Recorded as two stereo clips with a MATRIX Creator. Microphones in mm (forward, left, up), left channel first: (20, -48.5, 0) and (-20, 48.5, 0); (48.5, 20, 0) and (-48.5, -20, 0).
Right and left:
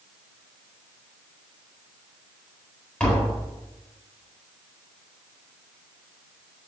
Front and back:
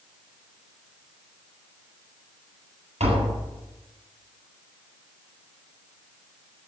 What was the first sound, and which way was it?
Tapping, 145° right.